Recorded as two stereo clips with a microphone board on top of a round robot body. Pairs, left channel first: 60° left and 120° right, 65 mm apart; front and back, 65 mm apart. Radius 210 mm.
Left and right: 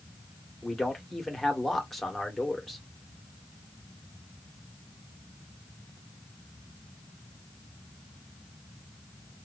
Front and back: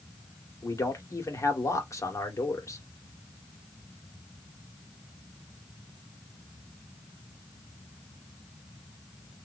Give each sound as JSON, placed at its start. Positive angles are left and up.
{"t": 0.6, "sound": "a man speaking", "azimuth_deg": -25, "distance_m": 1.8}